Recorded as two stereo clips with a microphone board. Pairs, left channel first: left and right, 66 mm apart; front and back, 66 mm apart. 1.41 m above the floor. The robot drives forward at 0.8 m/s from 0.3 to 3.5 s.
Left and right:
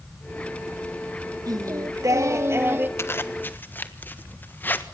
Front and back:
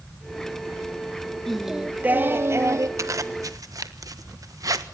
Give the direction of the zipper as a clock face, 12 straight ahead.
7 o'clock.